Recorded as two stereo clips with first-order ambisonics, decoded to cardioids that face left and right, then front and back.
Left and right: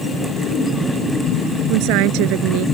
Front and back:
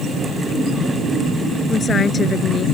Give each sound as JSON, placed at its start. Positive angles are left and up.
{"t": 1.7, "sound": "a woman speaking", "azimuth_deg": -70}